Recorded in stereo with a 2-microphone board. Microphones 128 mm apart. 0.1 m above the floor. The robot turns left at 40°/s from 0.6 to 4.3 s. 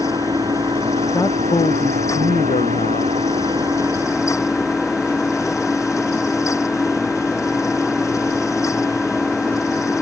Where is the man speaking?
160° left; by 3.2 s 80° left.